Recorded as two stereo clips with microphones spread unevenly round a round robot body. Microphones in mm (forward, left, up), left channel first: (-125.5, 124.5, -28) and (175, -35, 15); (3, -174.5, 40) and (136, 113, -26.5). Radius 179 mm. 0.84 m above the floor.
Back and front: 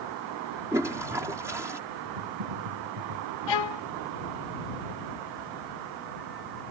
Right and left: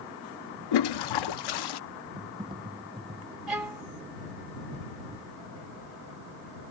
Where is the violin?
155° left.